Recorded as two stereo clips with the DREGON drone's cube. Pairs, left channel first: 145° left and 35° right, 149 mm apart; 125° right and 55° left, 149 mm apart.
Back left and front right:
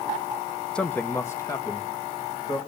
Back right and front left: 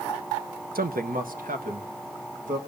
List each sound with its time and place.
0.8 s a man speaking: 60° left, 0.8 m; by 2.6 s 80° left, 2.5 m